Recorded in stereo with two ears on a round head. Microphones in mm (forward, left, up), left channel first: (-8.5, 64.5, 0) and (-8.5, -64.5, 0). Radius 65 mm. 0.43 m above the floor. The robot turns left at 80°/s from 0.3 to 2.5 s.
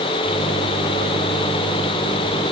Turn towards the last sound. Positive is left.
No sound to turn to.